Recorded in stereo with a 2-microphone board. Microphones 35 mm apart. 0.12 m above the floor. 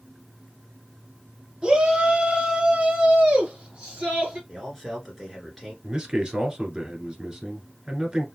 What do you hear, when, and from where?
1.6 s a shout: 25° right (ahead or behind), 1.3 m
4.5 s a man speaking: 5° left (ahead or behind), 2 m
5.8 s a man speaking: 25° right (ahead or behind), 1.4 m